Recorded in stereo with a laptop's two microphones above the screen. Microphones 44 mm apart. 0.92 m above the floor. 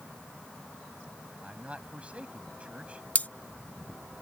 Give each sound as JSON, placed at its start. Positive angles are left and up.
{"t": 1.4, "sound": "a man speaking", "side_deg": -30}
{"t": 3.1, "sound": "cutlery clinking", "side_deg": 40}